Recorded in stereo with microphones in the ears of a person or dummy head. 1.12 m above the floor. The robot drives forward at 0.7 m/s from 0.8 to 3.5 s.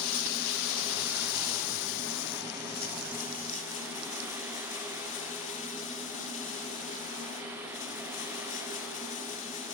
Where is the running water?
75° left (ahead or behind), 1.3 m; by 9.7 s 40° left (ahead or behind), 2 m.